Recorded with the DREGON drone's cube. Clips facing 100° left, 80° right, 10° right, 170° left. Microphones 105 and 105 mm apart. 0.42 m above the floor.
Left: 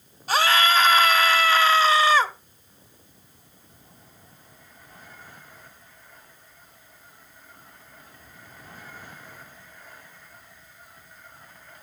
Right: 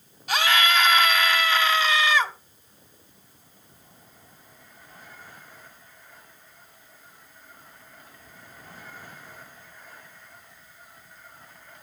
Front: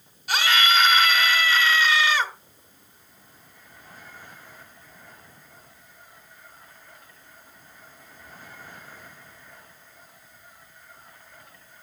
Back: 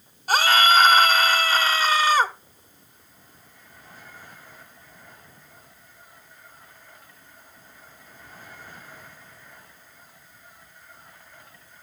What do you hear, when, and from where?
0.3 s a scream: 135° left, 1.4 m